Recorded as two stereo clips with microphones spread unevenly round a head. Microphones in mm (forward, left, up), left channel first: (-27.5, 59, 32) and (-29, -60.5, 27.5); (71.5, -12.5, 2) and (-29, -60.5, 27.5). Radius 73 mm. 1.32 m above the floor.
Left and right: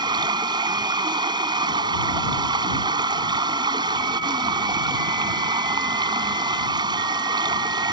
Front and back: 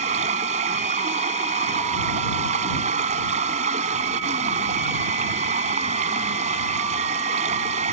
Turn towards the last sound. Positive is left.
turn(degrees=-145)